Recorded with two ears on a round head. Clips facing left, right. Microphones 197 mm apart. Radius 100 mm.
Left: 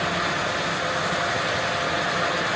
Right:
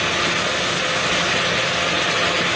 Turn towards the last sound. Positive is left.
No sound to turn to.